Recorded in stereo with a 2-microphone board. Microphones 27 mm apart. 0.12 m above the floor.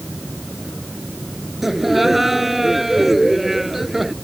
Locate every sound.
1.6 s laughter: 10° right (ahead or behind)